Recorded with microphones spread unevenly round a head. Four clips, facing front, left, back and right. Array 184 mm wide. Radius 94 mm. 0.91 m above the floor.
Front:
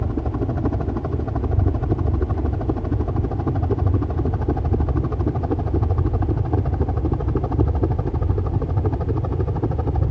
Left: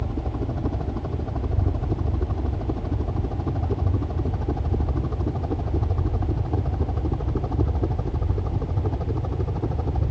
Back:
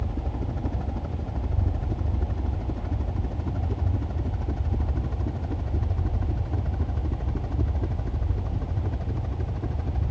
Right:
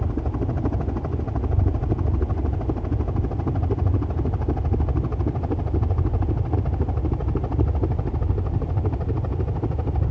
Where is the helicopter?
5° right; by 10.1 s straight ahead.